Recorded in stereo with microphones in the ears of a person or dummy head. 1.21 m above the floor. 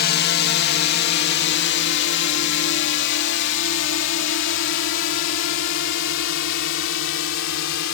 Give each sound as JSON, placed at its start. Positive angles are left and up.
{"t": 0.0, "sound": "a drone", "side_deg": 50}